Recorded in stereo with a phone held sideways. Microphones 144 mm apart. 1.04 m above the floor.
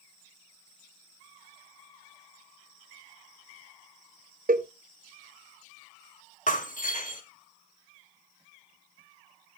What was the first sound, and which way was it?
A cowbell, 75° right (ahead or behind).